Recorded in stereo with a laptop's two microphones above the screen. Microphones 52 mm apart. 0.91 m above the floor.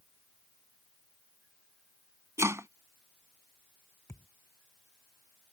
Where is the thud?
55° left (ahead or behind).